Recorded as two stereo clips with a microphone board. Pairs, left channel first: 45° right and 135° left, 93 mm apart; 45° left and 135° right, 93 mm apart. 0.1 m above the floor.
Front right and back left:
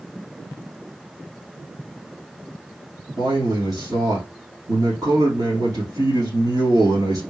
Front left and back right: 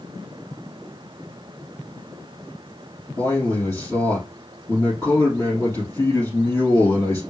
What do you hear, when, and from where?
3.2 s a man speaking: 100° left, 3 m